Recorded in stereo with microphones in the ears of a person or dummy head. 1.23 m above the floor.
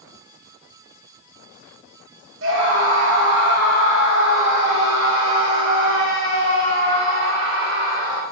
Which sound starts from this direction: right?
A scream, at 2.4 s.